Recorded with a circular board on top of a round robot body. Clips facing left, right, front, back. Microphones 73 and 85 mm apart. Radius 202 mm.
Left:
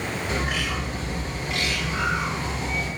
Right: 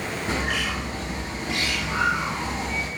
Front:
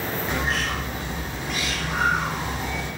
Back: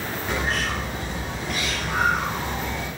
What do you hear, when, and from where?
0.3 s a bird: 90° right, 3.5 m